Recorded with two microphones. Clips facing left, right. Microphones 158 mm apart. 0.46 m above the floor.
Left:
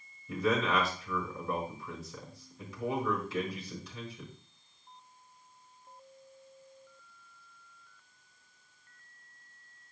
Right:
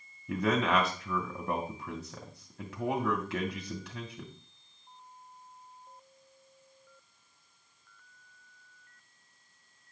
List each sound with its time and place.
0.3 s a man speaking: 70° right (ahead or behind), 3 m